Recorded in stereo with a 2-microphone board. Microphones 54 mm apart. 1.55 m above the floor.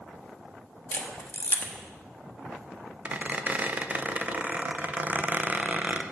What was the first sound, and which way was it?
A camera shutter, 45° left (ahead or behind).